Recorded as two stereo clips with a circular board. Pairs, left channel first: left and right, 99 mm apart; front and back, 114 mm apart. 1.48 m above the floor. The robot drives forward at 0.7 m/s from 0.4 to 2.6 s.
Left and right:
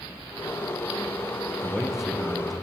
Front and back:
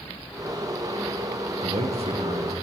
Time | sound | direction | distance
1.6 | a man speaking | 175° right | 0.6 m